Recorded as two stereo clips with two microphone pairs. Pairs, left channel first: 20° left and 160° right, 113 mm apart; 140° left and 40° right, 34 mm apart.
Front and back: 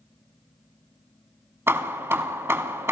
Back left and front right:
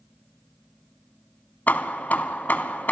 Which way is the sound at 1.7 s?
140° left.